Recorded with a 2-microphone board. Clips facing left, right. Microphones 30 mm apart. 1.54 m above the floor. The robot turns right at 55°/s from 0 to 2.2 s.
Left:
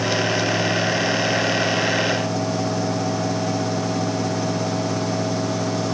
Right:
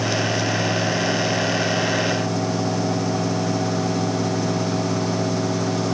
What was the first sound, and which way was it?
Only background noise.